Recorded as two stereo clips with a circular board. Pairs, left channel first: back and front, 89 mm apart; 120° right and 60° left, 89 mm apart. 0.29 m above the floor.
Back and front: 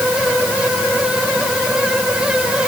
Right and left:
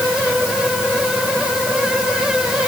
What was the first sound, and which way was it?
Only background noise.